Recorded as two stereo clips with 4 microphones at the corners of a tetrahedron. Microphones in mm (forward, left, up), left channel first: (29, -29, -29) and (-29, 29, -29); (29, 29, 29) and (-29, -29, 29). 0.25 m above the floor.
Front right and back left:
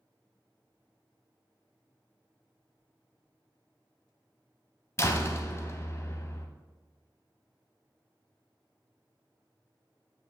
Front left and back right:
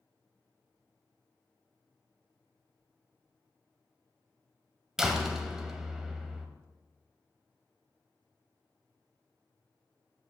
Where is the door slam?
55° right, 0.8 m.